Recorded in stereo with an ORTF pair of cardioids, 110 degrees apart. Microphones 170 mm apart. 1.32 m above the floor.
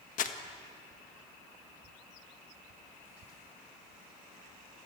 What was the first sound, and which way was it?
Crumpling, 55° left.